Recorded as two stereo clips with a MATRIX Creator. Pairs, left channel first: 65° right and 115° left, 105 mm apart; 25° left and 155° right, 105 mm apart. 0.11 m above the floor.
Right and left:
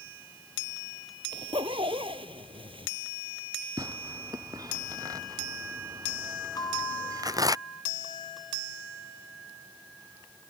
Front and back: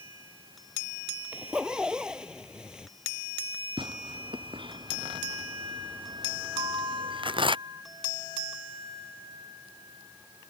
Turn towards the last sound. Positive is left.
turn(degrees=-115)